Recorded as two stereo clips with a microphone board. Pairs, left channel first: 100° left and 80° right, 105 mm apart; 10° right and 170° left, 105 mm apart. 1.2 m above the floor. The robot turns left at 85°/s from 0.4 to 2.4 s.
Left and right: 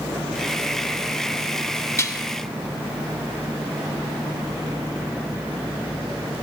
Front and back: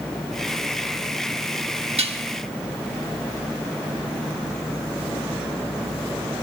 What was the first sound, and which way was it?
Dishes clattering, 160° left.